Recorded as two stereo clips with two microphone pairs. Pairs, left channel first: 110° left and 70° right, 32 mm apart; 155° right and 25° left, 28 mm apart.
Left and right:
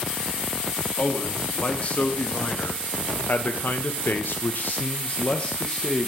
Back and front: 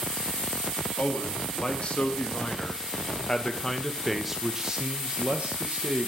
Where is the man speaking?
165° left, 2 m; by 6.1 s 45° left, 1.1 m.